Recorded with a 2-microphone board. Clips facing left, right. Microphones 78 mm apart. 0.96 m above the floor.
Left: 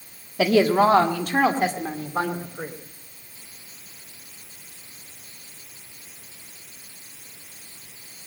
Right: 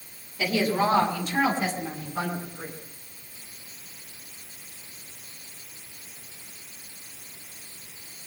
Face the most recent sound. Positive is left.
turn(degrees=45)  # may be behind; listen again after turning